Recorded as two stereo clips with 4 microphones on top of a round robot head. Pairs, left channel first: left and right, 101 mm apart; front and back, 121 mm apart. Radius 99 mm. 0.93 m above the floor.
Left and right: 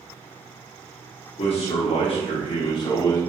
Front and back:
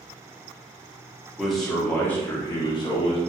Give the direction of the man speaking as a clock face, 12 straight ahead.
9 o'clock.